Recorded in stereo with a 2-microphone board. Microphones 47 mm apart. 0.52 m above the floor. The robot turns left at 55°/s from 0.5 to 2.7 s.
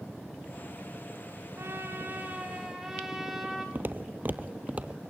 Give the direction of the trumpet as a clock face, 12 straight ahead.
4 o'clock.